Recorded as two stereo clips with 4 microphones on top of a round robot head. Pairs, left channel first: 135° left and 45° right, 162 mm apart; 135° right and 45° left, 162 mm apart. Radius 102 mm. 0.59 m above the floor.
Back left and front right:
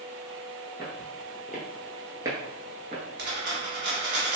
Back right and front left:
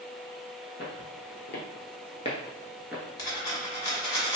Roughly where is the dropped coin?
Right.